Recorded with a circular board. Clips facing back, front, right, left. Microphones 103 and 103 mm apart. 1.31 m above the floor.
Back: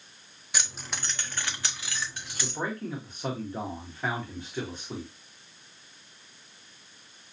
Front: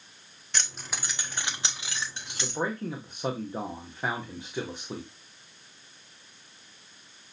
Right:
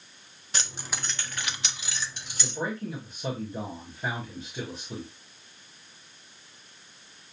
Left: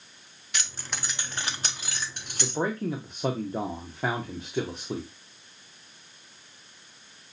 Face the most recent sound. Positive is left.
turn(degrees=75)